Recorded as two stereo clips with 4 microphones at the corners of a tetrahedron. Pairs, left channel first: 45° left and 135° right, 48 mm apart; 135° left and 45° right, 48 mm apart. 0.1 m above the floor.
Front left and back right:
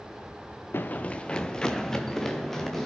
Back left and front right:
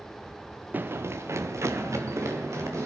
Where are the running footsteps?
5° left, 0.5 m; by 2.9 s 40° right, 3 m.